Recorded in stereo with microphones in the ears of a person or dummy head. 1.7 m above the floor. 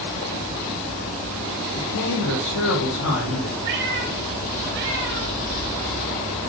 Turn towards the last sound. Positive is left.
turn(degrees=-60)  # may be behind; listen again after turning